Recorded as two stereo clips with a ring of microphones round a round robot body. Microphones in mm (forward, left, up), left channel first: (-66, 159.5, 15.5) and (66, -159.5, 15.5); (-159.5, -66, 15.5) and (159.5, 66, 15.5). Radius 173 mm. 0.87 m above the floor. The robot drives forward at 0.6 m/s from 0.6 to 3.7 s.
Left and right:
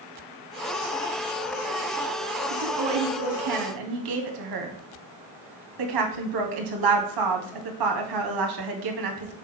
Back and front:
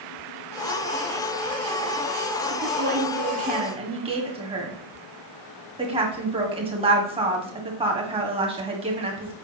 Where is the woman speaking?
35° right, 2 m; by 9.3 s 50° right, 1.7 m.